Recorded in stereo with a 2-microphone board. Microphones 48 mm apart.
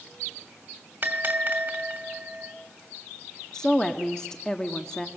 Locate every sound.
1.0 s a bell: 35° right (ahead or behind), 2.5 m
3.5 s a woman speaking: 15° left (ahead or behind), 1.0 m